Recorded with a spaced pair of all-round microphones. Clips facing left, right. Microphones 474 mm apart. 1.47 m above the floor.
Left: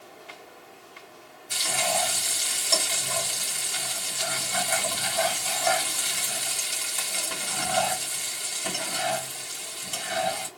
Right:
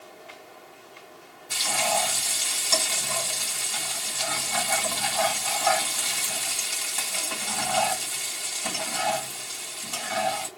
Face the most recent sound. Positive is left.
turn(degrees=-10)  # may be behind; listen again after turning